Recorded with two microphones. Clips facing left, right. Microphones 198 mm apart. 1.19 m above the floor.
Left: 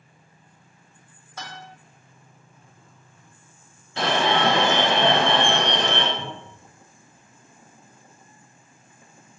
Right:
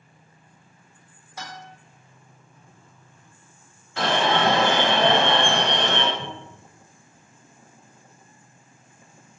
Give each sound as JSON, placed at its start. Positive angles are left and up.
{"t": 1.4, "sound": "a guitar", "side_deg": -10, "distance_m": 1.4}
{"t": 4.0, "sound": "an alarm", "side_deg": 20, "distance_m": 1.8}
{"t": 6.2, "sound": "a cupboard door", "side_deg": -15, "distance_m": 1.3}